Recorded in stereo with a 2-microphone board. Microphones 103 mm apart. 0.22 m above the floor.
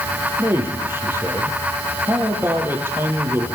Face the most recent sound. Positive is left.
turn(degrees=-20)  # may be behind; listen again after turning